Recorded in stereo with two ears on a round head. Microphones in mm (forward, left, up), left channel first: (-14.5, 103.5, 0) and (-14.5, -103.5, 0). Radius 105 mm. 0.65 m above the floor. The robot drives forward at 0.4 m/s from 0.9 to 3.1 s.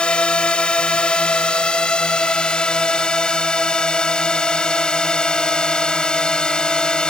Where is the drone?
5° left (ahead or behind).